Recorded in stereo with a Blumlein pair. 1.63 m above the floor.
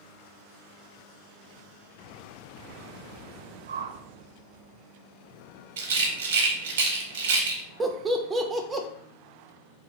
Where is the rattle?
60° right, 0.6 m.